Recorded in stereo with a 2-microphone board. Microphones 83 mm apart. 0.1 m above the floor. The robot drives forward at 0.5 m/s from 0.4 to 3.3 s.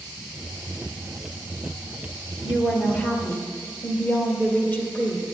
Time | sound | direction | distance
2.4 | a woman speaking | 20° left (ahead or behind) | 1.7 m